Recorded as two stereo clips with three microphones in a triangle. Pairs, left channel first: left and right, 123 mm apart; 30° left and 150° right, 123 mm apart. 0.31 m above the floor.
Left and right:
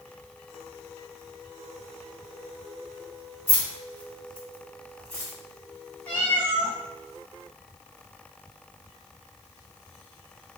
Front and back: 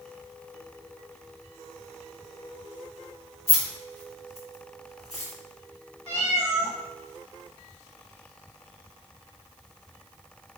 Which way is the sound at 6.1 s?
15° left.